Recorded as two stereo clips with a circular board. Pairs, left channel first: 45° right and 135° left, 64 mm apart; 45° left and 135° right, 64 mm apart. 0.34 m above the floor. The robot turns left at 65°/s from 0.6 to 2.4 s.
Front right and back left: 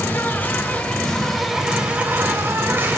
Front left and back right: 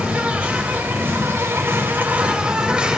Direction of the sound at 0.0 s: 80° right.